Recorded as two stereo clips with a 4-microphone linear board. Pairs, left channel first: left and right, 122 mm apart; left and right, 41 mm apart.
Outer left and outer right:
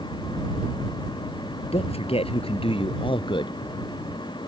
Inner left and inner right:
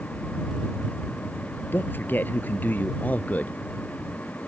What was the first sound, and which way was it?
A man speaking, 55° left (ahead or behind).